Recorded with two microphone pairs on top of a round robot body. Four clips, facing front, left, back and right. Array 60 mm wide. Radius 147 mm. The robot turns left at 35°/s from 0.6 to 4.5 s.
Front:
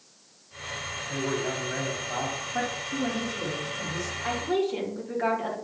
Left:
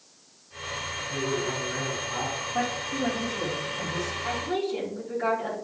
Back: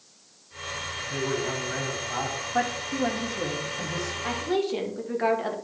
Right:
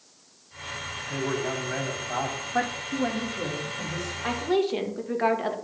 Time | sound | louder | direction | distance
1.1 | a man speaking | right 1 dB, back 1 dB | 35° right | 3.5 m
2.5 | a woman speaking | right 2 dB, back 4 dB | 125° right | 1.7 m
4.2 | a woman speaking | right 6 dB, even | 100° right | 1.6 m